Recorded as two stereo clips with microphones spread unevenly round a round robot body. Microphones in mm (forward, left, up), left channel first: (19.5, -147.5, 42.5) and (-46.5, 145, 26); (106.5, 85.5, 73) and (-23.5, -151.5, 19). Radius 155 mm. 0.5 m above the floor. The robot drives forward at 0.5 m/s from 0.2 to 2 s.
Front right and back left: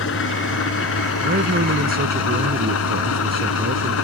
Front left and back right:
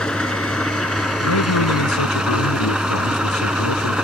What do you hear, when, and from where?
0.0 s an engine running: 25° right; by 4.0 s 30° right
1.2 s a man speaking: 40° left